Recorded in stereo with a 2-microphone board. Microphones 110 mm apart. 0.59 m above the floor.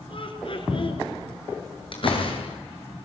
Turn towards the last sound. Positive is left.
turn(degrees=55)  # may be behind; listen again after turning